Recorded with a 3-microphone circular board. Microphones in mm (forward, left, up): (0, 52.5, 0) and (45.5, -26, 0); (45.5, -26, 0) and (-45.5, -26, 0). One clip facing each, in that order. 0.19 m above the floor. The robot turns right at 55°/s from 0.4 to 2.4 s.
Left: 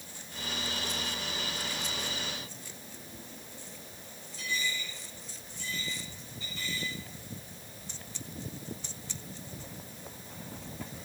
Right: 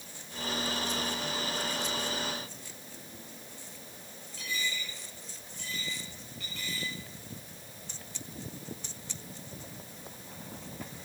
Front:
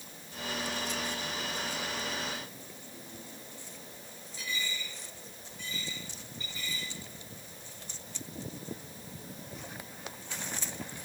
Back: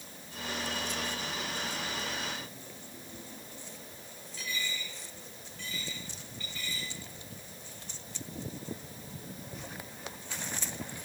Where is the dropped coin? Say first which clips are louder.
Left 1 dB, even; 75° right, 9.5 m.